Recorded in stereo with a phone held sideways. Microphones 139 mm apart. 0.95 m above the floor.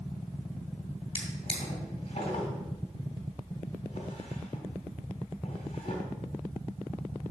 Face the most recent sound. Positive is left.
turn(degrees=45)  # may be behind; listen again after turning